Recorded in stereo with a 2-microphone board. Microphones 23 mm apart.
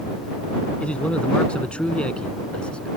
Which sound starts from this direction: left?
A man speaking, at 0.8 s.